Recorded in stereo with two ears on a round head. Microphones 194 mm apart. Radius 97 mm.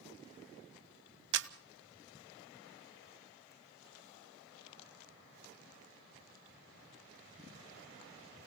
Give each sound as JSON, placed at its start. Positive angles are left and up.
{"t": 1.3, "sound": "a camera shutter", "side_deg": -60, "distance_m": 0.8}